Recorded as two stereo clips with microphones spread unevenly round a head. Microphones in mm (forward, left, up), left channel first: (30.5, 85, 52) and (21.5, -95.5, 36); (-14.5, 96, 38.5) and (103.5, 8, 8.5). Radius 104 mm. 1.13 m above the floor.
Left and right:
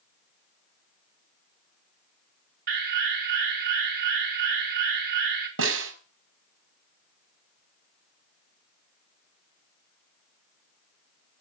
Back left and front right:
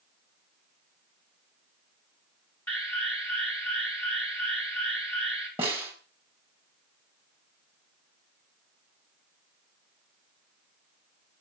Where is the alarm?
135° right, 4 m.